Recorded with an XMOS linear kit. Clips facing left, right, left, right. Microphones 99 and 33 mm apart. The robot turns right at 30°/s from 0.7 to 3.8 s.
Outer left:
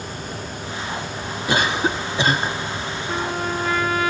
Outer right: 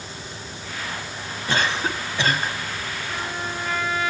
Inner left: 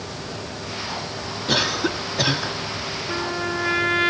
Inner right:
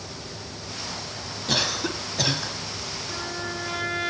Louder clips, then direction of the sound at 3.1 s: Outer left 7 dB, inner left 8 dB; 50° left (ahead or behind).